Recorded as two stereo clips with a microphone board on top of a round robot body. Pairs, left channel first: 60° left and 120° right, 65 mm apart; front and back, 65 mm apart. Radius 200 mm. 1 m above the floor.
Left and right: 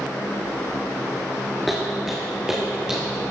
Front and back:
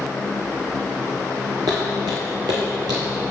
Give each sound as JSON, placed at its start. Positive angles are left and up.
{"t": 1.7, "sound": "footsteps", "azimuth_deg": 155, "distance_m": 1.0}